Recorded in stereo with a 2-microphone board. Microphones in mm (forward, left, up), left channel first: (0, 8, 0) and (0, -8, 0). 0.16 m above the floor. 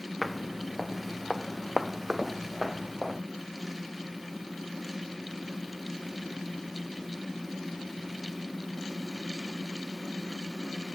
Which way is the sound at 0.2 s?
Centre (ahead or behind).